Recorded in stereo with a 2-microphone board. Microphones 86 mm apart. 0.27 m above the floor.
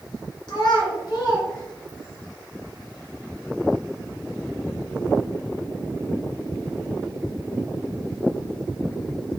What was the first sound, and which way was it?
A child speaking, 55° left (ahead or behind).